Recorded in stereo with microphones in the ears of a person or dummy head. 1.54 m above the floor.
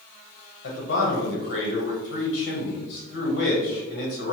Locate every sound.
0.6 s a man speaking: 65° left (ahead or behind), 1.1 m